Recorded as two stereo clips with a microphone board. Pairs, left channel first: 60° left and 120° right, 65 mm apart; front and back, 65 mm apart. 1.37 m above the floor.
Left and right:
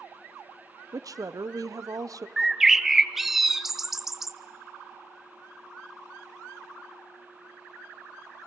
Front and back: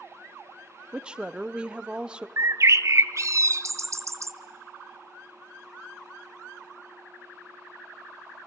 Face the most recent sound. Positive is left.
turn(degrees=155)